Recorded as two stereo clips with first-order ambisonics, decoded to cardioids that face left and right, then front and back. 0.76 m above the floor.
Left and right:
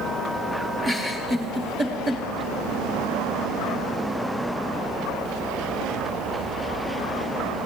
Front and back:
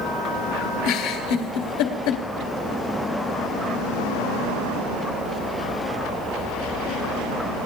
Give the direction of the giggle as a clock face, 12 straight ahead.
12 o'clock.